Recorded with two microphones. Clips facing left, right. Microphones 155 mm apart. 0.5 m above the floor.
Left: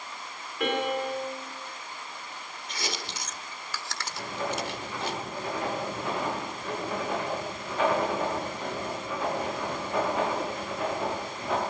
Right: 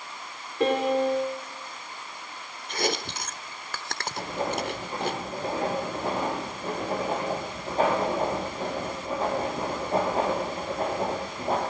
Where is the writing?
35° right (ahead or behind), 9.5 m.